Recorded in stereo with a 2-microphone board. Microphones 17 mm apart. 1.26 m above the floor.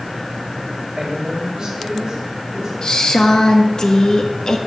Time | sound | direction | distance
1.0 | a woman speaking | 60° right (ahead or behind) | 6 m
2.8 | a woman speaking | 40° left (ahead or behind) | 1.5 m